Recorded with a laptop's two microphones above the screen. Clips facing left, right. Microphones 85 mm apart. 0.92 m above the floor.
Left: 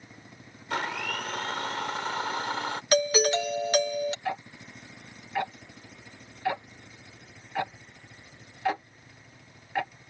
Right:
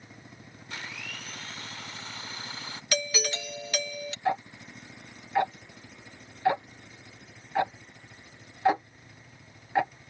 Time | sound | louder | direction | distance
0.7 | a blender | left 11 dB | 70° left (ahead or behind) | ?
2.9 | a doorbell | left 9 dB | 40° left (ahead or behind) | ?
4.2 | ticking | right 4 dB | 20° right (ahead or behind) | ?